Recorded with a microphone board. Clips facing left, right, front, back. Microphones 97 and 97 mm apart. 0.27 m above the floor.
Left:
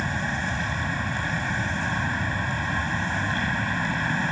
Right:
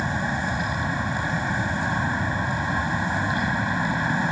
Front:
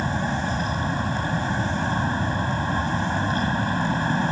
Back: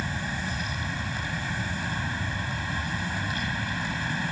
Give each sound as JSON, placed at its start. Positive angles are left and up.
{"t": 0.0, "sound": "an aircraft", "azimuth_deg": -20}